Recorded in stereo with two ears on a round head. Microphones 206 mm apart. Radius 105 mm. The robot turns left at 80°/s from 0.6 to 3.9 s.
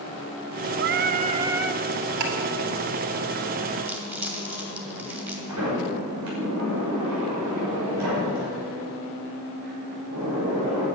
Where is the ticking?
80° right, 2.5 m; by 2.3 s 75° right (ahead or behind), 2.5 m.